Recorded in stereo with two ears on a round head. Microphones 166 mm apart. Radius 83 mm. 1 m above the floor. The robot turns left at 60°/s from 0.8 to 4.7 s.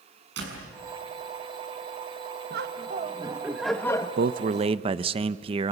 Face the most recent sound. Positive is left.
turn(degrees=-145)